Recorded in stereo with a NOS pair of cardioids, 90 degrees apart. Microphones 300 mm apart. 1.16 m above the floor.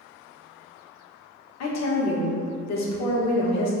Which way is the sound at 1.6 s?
65° left.